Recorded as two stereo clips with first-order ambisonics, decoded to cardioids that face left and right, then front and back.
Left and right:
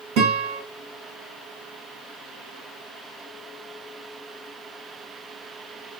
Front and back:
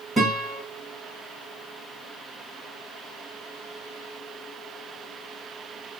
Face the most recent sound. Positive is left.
turn(degrees=-100)